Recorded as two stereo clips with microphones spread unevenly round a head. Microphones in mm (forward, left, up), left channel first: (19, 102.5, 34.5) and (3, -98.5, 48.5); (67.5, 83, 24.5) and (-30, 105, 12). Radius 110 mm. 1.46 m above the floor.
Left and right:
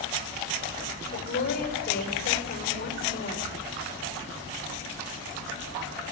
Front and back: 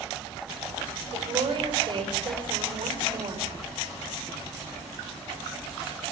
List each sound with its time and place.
1.1 s a woman speaking: 135° left, 5 m